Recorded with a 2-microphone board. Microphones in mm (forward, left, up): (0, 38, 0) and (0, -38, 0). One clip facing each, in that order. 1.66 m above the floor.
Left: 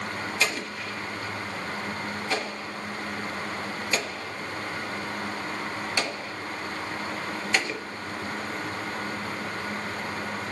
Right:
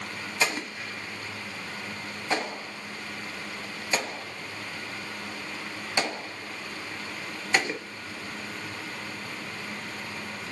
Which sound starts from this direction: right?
An explosion, at 0.4 s.